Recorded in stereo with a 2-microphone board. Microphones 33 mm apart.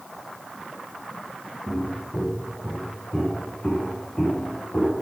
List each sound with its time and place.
1.7 s footsteps: 30° left (ahead or behind), 9.5 m; by 5.0 s 45° left (ahead or behind), 8.5 m